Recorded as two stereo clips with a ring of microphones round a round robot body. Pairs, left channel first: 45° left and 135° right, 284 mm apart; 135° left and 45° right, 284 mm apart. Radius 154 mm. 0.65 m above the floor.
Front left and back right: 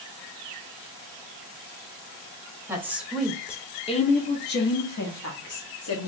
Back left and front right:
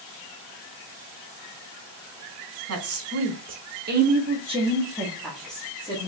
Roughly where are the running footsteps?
No running footsteps in this recording.